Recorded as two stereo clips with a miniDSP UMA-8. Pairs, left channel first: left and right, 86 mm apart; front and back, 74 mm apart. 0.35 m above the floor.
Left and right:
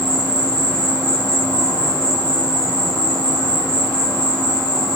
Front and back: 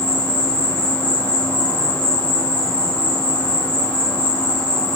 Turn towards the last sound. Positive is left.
turn(degrees=-155)